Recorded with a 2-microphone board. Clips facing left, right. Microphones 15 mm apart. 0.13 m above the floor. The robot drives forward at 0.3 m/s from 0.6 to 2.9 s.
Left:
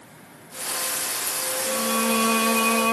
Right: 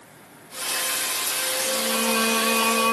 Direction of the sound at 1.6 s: 10° left (ahead or behind).